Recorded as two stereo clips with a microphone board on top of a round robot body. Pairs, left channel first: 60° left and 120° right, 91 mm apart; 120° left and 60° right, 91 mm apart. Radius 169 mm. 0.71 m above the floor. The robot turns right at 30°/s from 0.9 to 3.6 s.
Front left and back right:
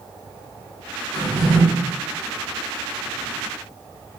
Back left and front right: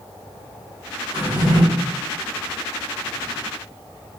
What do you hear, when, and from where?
1.1 s a drawer: 40° right, 1.6 m; by 1.6 s 25° right, 1.6 m